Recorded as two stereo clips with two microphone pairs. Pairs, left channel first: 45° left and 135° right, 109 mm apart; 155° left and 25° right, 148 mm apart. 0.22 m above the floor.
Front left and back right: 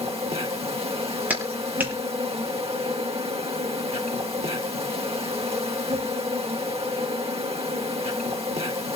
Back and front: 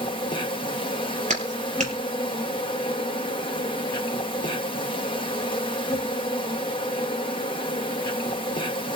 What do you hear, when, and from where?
0.0 s an insect: 150° right, 3 m
1.3 s a clap: 60° right, 4.5 m